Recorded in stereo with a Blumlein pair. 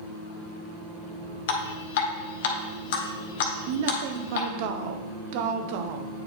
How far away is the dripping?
About 1.0 m.